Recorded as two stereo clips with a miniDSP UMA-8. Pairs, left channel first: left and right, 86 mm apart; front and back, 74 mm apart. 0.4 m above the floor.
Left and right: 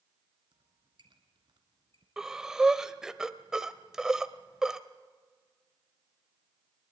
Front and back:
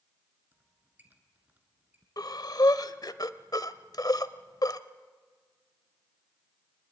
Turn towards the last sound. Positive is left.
turn(degrees=-10)